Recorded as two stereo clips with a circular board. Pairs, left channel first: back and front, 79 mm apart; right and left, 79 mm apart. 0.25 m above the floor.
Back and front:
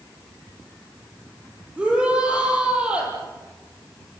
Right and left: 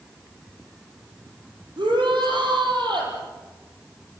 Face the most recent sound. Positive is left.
turn(degrees=75)